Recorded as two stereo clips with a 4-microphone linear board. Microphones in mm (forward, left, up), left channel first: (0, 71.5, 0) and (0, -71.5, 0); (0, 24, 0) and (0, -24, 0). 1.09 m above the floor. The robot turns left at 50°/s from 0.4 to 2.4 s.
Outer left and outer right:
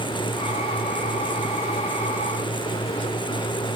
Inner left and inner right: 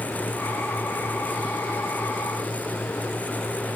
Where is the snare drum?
I don't hear a snare drum.